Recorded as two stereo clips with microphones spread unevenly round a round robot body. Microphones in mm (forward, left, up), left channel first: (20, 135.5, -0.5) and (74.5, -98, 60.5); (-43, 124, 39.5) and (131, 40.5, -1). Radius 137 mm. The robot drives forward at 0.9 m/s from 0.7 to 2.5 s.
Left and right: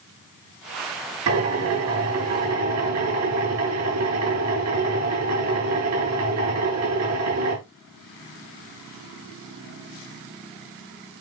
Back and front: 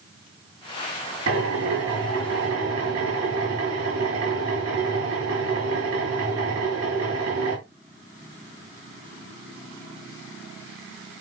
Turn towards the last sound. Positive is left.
turn(degrees=-65)